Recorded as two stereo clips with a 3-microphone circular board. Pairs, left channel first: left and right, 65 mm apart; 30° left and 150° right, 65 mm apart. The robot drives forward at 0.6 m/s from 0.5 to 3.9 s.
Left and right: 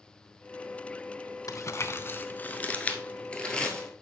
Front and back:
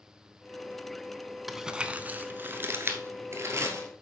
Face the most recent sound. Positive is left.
turn(degrees=165)